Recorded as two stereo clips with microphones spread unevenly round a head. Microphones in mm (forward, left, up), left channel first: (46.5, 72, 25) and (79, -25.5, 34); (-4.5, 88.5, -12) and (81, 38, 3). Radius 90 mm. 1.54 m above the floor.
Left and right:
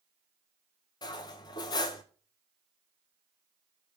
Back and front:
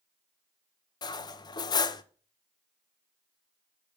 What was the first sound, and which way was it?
Cutlery clinking, 140° left.